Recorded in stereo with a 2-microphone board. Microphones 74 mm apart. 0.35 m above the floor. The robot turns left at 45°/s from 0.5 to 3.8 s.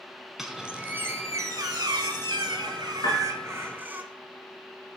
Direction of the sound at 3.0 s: 75° left (ahead or behind).